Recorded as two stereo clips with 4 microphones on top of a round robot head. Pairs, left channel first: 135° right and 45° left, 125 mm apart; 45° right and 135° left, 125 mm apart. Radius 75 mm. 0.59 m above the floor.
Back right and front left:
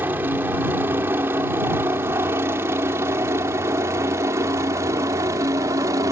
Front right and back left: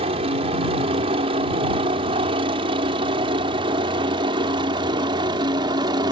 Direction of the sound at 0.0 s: 115° left.